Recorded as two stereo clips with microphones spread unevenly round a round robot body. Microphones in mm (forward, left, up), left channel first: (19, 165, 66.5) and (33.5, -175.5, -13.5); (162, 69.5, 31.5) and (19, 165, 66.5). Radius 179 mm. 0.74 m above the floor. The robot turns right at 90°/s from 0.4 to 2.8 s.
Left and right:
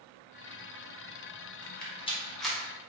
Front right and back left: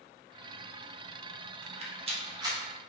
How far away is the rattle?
About 0.8 m.